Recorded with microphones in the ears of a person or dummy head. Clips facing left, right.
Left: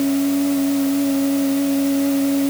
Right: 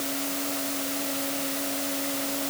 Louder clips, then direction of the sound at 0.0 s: Left 15 dB; 70° left (ahead or behind).